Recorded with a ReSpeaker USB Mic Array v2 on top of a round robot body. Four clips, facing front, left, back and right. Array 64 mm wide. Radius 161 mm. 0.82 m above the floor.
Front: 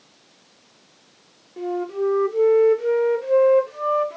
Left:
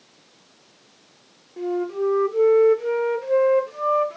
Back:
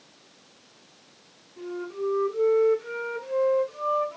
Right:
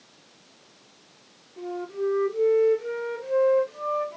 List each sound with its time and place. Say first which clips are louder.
1.6 s a flute: left 6 dB, front 8 dB; 35° left, 0.6 m